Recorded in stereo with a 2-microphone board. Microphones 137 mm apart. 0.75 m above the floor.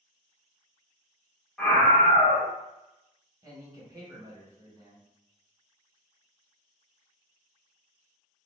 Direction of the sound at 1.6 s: 5° left (ahead or behind).